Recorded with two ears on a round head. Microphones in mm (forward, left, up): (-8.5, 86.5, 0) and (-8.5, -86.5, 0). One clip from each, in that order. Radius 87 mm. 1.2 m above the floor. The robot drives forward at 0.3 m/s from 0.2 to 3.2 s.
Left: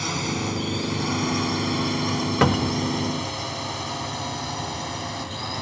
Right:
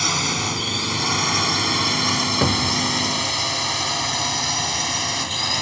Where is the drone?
35° right (ahead or behind); by 5.6 s 60° right (ahead or behind).